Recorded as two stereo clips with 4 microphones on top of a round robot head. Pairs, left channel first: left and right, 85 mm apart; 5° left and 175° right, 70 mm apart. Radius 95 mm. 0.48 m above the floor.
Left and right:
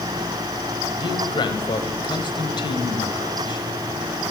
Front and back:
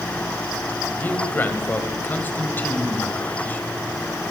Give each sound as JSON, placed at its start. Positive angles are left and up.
{"t": 1.0, "sound": "a man speaking", "azimuth_deg": 65, "distance_m": 3.5}